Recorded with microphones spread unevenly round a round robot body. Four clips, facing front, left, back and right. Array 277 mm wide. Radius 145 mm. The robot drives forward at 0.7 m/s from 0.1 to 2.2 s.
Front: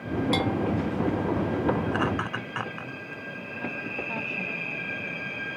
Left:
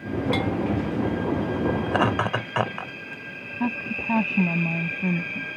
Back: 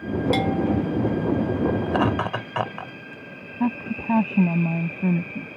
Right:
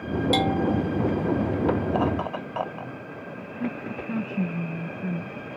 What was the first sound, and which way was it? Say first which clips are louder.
A bell: right 3 dB, back 4 dB; 145° right.